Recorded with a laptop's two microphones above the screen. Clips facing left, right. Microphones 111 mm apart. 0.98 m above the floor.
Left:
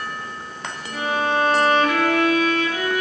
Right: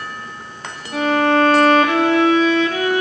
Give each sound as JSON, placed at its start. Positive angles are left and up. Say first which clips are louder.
{"t": 0.9, "sound": "a violin", "louder": "right 7 dB", "side_deg": -70, "distance_m": 2.0}